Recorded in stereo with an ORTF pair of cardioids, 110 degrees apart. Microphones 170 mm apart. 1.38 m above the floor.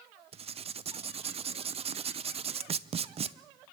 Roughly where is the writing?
Ahead right.